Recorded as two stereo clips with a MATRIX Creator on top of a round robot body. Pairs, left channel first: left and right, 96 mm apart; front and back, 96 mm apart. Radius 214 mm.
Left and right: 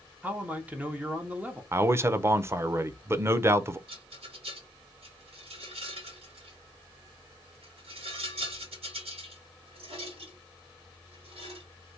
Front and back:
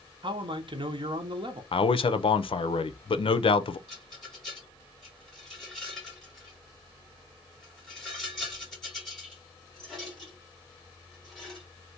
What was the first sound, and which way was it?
A man speaking, 165° right.